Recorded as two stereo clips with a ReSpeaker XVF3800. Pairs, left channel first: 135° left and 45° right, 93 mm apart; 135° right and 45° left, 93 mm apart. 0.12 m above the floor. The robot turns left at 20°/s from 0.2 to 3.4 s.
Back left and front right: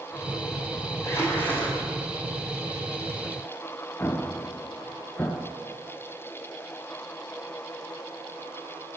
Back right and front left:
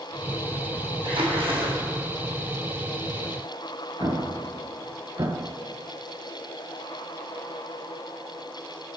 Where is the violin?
No violin in this recording.